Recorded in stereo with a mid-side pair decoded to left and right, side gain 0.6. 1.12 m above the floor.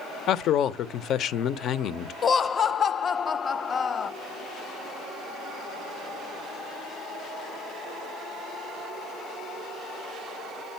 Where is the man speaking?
55° left, 0.6 m.